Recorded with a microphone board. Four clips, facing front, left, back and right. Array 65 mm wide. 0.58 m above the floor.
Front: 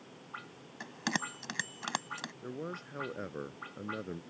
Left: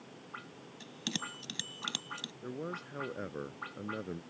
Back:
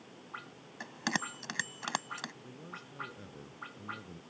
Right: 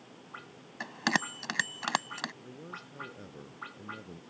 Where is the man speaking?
40° left.